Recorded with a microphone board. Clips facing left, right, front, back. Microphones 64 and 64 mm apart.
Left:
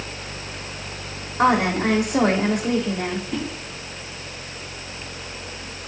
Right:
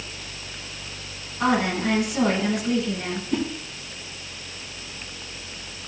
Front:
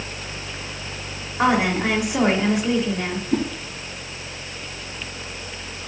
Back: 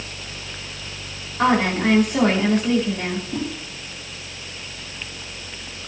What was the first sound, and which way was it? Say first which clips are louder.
A woman speaking: left 4 dB, back 1 dB; 75° left.